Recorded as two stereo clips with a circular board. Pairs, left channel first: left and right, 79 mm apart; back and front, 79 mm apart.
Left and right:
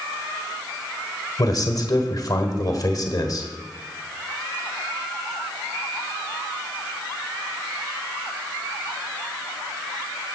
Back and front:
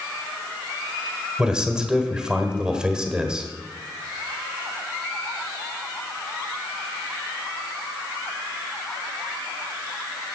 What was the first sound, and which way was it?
A man speaking, 80° left.